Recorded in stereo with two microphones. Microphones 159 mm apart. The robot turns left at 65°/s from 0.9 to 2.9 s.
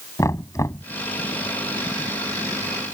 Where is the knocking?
20° left (ahead or behind).